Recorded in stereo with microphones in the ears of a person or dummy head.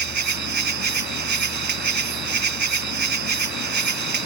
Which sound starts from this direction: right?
An insect, at 0.0 s.